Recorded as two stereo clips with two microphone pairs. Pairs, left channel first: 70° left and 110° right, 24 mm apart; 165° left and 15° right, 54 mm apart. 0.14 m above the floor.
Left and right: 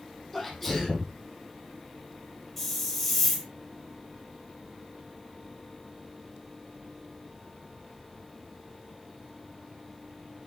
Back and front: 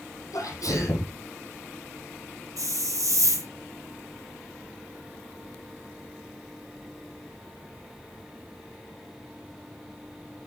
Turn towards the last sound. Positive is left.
turn(degrees=-10)